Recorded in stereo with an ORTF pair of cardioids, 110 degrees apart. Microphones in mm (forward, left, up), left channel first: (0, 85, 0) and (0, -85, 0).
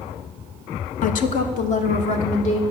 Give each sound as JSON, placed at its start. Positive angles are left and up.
{"t": 1.0, "sound": "a woman speaking", "azimuth_deg": 50, "distance_m": 0.7}